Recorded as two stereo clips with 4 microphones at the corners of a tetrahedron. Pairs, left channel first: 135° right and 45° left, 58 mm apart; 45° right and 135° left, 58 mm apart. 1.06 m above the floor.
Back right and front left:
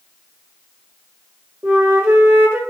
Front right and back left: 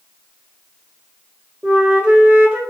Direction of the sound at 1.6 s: 80° left.